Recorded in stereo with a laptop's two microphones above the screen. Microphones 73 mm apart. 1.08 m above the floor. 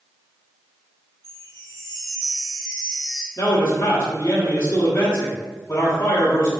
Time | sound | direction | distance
1.2 | a chime | 60° left (ahead or behind) | 1.1 m
3.4 | a man speaking | 35° left (ahead or behind) | 0.9 m